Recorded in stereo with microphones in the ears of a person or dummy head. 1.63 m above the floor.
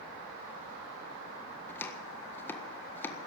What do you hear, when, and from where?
1.7 s chopping: 15° left (ahead or behind), 1.5 m